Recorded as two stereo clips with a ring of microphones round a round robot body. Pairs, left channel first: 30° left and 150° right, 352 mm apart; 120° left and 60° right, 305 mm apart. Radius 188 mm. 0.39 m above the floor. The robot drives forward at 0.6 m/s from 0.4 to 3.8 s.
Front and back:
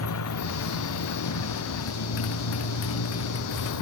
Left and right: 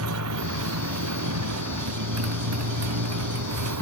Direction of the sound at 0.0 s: 20° right.